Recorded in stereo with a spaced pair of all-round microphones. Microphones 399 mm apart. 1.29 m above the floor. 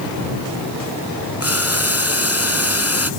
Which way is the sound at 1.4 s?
35° left (ahead or behind).